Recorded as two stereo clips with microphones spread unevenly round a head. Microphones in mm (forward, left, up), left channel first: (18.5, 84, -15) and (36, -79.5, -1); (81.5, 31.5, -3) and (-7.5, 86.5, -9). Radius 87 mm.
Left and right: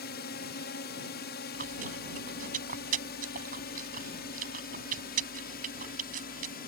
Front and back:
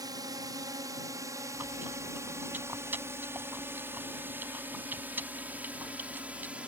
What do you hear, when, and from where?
0.0 s a drone: 105° left; by 6.7 s 70° left
1.5 s chewing: 130° right